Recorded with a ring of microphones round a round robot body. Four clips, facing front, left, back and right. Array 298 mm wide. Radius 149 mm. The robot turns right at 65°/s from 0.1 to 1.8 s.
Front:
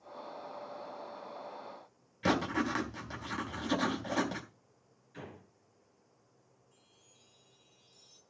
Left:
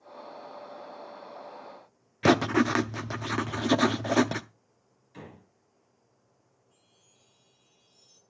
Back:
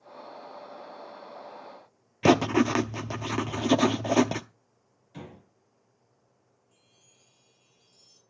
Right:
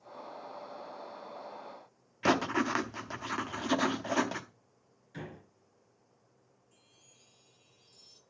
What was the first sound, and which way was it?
Writing, 150° left.